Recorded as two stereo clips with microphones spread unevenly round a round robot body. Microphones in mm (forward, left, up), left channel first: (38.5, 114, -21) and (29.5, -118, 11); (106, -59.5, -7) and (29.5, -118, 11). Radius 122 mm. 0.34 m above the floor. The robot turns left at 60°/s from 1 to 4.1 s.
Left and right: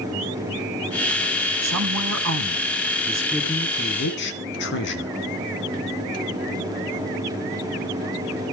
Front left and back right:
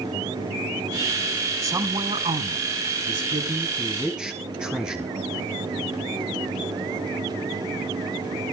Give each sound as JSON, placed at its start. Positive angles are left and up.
{"t": 1.6, "sound": "a woman speaking", "azimuth_deg": -85, "distance_m": 3.5}